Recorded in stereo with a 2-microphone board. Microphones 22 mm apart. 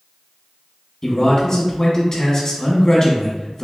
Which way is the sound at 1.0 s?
35° left (ahead or behind).